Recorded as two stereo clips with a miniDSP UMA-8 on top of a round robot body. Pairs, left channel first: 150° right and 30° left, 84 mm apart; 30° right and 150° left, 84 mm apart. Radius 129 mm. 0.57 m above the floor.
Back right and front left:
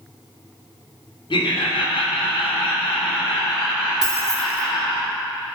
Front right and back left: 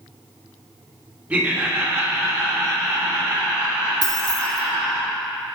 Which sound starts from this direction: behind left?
Keys jangling, at 4.0 s.